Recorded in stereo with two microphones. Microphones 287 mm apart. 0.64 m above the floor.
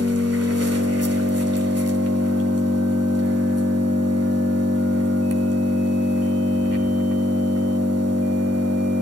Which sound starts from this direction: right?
An engine running, at 0.0 s.